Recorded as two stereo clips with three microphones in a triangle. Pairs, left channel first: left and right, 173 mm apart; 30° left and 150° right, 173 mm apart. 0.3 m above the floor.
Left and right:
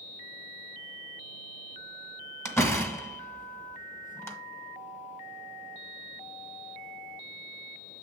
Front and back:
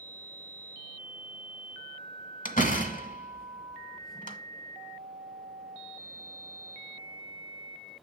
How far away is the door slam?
About 1.2 m.